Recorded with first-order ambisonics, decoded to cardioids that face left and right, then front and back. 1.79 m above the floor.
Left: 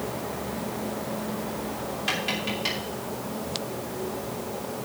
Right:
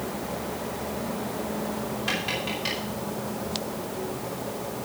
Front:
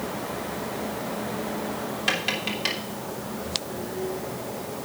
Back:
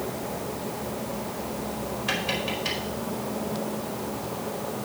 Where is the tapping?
10° left, 2.5 m.